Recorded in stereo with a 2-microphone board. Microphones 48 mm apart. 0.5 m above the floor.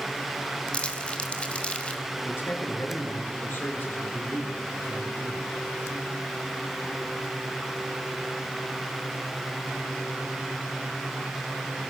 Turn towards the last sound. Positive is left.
turn(degrees=50)  # may be behind; listen again after turning